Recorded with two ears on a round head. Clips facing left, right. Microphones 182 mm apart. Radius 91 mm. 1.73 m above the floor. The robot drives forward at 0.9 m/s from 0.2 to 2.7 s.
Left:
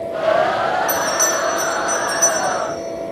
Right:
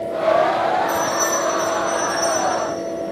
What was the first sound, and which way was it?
A bell, 60° left (ahead or behind).